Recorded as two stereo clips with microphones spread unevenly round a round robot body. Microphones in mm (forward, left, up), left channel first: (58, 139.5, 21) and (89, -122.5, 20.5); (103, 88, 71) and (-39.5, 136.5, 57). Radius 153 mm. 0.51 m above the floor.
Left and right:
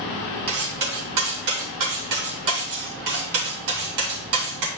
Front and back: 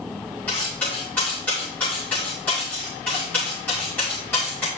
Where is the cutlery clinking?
100° right, 3 m.